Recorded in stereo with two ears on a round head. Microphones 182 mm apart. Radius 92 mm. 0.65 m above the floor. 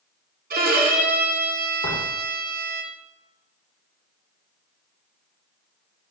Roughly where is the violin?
Right.